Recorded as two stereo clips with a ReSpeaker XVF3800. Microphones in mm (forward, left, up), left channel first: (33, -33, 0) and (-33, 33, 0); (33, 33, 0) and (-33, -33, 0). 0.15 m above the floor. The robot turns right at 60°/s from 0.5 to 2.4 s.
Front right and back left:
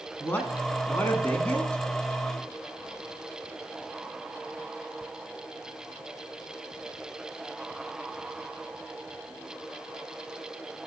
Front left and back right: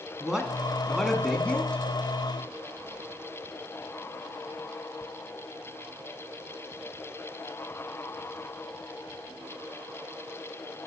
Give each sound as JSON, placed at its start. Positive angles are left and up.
{"t": 0.2, "sound": "a man speaking", "azimuth_deg": -70, "distance_m": 1.2}